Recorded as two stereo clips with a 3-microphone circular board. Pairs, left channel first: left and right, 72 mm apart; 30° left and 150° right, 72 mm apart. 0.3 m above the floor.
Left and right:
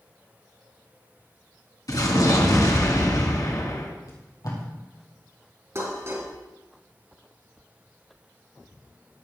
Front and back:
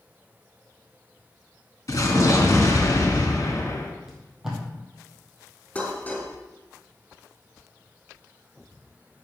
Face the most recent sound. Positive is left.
turn(degrees=-40)